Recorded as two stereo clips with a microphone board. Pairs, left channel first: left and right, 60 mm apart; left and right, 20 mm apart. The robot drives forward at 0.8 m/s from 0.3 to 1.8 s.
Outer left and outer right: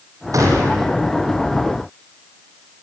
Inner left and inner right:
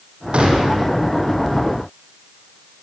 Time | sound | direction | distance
0.3 | a gunshot | 65° right (ahead or behind) | 6.5 m